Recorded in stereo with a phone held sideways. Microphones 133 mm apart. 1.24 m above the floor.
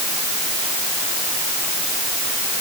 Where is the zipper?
No zipper in this recording.